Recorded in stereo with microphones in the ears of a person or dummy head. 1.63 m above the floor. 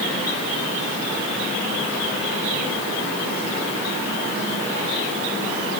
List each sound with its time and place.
Only background noise.